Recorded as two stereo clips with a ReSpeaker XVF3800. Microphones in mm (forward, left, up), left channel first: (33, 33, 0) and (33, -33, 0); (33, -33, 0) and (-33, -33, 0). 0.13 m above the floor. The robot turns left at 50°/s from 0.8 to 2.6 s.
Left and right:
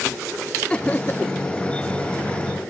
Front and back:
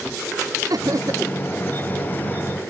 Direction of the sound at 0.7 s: 160° left.